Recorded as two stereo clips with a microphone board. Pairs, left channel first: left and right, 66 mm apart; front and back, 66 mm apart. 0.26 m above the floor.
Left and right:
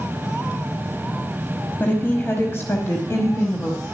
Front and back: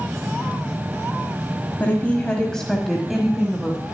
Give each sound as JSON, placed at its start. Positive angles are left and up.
{"t": 1.8, "sound": "a woman speaking", "azimuth_deg": 45, "distance_m": 1.3}